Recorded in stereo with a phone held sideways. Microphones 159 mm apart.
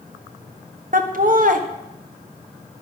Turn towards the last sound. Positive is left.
turn(degrees=-60)  # may be behind; listen again after turning